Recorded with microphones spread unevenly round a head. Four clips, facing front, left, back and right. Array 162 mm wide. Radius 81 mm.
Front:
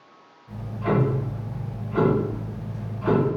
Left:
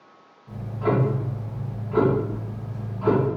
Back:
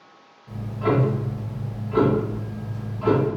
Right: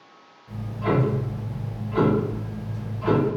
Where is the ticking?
140° left, 1.7 m.